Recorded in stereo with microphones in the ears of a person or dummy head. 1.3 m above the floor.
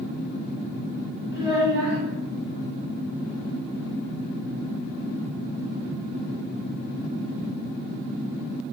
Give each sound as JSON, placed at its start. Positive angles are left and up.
{"t": 1.3, "sound": "a child speaking", "side_deg": -20, "distance_m": 1.9}